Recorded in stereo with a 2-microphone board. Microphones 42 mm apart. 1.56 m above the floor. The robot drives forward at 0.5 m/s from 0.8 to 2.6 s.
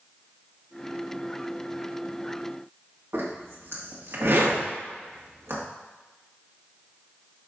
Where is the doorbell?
I don't hear a doorbell.